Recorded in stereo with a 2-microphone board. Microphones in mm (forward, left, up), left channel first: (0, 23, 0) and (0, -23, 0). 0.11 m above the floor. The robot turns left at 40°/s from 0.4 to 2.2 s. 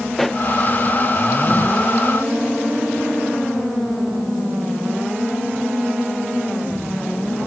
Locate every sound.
0.1 s a pop: centre (ahead or behind); by 0.4 s 5° left (ahead or behind)